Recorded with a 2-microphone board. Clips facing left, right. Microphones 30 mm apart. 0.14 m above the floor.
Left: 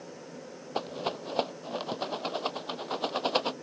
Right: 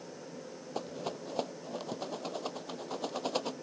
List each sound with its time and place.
0.8 s a rattle: 50° left (ahead or behind)